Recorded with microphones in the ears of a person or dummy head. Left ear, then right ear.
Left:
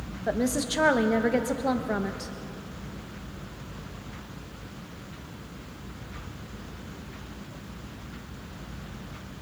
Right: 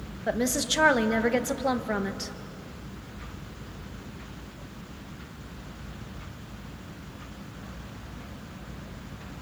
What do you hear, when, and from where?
0.3 s a woman speaking: 15° right (ahead or behind), 1.1 m